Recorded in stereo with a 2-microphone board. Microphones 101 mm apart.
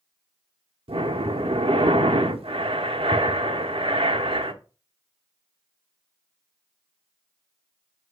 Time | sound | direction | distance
0.9 | breathing | 75° right (ahead or behind) | 1.0 m